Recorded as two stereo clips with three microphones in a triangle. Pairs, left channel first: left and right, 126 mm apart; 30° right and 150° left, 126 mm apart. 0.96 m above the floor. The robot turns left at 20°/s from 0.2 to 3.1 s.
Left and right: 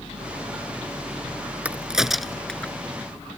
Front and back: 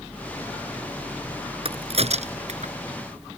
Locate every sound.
1.6 s a crack: 170° right; by 2.7 s 170° left